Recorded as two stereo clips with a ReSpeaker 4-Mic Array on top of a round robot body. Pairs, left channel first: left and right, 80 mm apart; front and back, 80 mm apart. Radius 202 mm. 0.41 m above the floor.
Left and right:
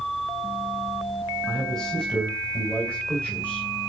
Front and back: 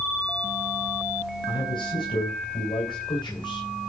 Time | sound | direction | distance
1.5 | a man speaking | 5° left | 4.5 m